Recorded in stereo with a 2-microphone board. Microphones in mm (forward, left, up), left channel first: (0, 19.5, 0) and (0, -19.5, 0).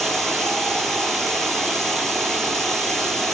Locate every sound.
0.0 s running water: 5° left (ahead or behind), 3.5 m